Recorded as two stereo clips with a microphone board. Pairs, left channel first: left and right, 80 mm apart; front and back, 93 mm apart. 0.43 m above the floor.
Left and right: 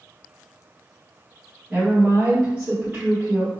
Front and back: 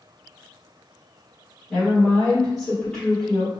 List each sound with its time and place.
1.7 s a woman speaking: 65° right, 1.3 m